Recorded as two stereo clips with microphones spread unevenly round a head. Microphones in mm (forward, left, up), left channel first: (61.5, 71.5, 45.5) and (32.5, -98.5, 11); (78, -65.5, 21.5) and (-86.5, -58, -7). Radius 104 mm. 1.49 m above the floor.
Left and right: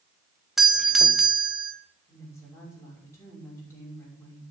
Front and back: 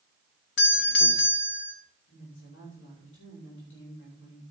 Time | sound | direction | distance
0.6 | a doorbell | 15° right | 1.5 m
2.1 | a woman speaking | 5° left | 5.5 m